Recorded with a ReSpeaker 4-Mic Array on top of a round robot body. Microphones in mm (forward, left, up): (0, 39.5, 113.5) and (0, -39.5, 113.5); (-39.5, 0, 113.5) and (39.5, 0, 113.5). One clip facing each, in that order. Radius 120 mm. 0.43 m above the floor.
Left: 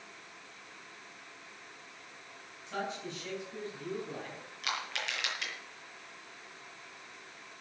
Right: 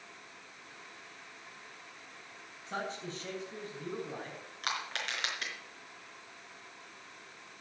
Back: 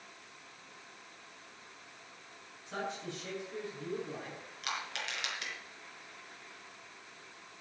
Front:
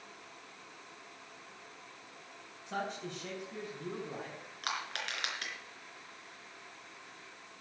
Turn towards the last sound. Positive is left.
turn(degrees=-40)